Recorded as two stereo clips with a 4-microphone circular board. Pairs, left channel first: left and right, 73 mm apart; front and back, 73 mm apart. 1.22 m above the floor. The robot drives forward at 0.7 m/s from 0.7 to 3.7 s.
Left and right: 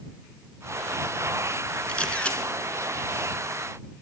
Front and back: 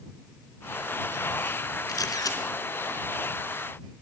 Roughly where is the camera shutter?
Ahead.